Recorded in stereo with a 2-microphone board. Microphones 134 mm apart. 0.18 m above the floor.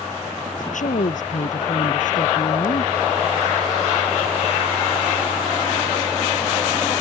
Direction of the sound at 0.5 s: 70° left (ahead or behind).